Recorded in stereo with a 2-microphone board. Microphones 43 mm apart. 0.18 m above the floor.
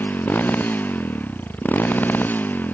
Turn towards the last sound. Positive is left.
turn(degrees=45)  # may be behind; listen again after turning